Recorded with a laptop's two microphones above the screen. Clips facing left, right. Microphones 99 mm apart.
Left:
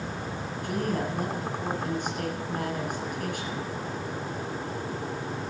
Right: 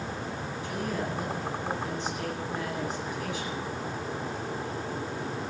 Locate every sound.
0.6 s a woman speaking: 55° left (ahead or behind), 9 m